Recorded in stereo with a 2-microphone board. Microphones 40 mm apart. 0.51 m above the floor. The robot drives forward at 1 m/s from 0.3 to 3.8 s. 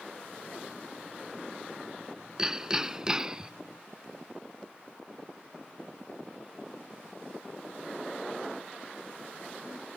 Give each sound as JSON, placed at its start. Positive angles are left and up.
{"t": 2.4, "sound": "hammering", "side_deg": -10}